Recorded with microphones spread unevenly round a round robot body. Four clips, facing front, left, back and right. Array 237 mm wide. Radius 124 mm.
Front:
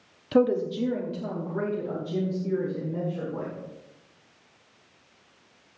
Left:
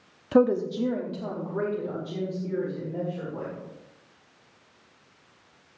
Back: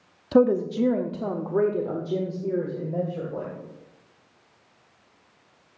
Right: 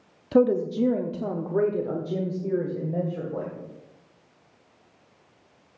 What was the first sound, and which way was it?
A woman speaking, 160° left.